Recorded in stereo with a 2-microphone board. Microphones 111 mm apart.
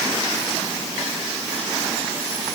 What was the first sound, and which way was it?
Only background noise.